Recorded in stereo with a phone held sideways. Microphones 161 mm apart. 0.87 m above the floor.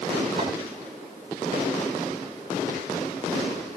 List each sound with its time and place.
0.4 s a clink: 45° right (ahead or behind), 8.5 m